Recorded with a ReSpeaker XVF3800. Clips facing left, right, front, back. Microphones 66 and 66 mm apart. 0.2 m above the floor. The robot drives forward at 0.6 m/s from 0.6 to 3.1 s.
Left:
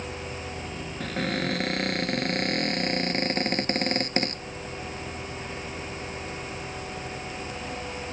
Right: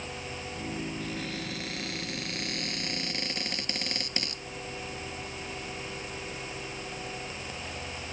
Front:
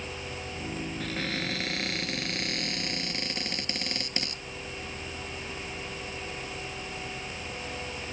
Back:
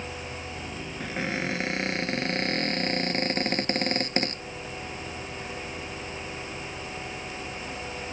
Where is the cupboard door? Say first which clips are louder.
Left 7 dB, back 5 dB; 110° left; by 4.4 s 135° left.